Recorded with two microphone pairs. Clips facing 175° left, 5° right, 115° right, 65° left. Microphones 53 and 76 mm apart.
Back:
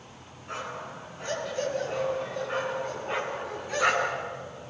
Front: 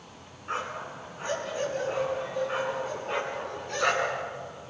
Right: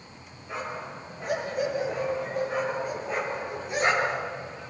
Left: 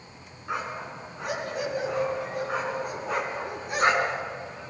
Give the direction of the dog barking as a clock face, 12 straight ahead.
10 o'clock.